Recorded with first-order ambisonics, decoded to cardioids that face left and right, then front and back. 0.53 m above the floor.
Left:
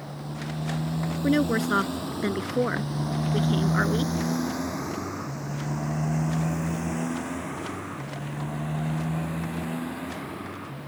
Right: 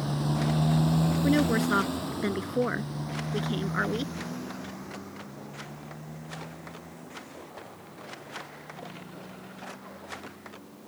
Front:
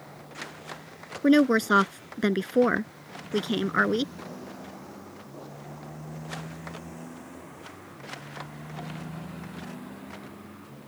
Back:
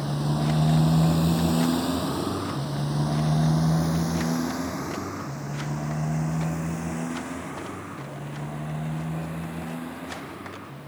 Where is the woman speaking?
5° left.